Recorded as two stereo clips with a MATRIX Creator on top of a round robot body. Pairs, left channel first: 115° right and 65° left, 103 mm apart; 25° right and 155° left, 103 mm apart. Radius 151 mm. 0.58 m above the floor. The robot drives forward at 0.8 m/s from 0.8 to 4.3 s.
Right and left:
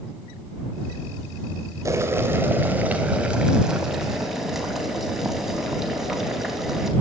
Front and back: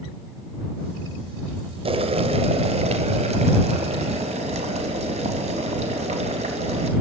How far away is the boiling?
About 2 m.